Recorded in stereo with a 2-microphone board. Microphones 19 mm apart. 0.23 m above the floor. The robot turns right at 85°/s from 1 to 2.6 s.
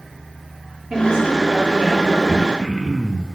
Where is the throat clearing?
80° right, 0.7 m; by 3.2 s 50° right (ahead or behind), 0.7 m.